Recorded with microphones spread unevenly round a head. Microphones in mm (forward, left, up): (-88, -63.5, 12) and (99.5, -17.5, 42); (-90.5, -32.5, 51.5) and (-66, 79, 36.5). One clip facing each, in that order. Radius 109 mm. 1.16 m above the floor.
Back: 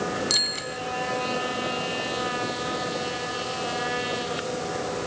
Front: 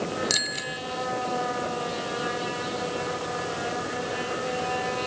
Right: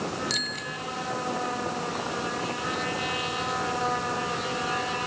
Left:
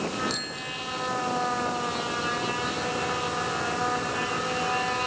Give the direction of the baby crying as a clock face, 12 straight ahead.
No baby crying in this recording.